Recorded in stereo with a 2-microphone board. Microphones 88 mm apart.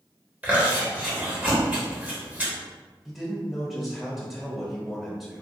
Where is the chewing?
20° right (ahead or behind), 1.2 m.